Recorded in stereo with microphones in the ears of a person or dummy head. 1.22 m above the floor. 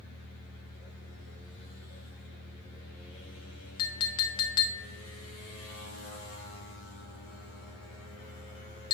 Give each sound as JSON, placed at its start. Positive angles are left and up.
{"t": 3.8, "sound": "a clink", "side_deg": 25, "distance_m": 0.7}